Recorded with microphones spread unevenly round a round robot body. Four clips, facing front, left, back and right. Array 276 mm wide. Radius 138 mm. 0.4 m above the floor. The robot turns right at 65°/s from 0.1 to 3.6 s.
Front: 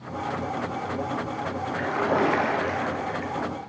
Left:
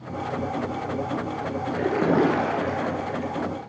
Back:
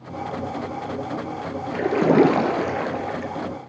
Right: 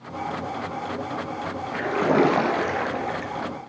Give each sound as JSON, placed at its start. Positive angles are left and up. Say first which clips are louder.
{"t": 1.7, "sound": "a splash", "louder": "right 1 dB, back 8 dB", "azimuth_deg": 145, "distance_m": 2.5}